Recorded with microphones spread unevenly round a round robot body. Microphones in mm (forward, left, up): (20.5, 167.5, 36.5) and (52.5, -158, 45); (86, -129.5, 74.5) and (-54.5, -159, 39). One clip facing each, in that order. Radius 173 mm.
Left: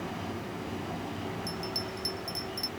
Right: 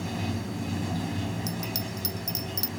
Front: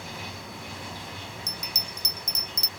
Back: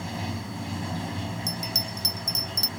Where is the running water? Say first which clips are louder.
Right 4 dB, back 6 dB; 135° right.